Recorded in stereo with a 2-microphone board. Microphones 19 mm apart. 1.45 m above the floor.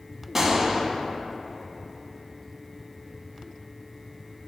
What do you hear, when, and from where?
0.3 s a gunshot: 25° right (ahead or behind), 1.1 m